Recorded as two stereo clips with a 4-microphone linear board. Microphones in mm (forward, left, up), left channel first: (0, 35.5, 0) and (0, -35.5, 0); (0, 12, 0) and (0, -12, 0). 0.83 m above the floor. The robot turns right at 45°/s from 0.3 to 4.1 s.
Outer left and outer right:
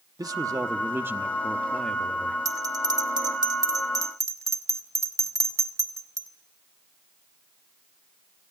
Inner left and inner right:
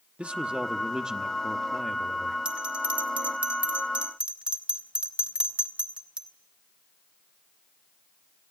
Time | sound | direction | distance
0.2 | a man speaking | 70° right | 1.0 m
2.5 | a bell | 55° right (ahead or behind) | 1.7 m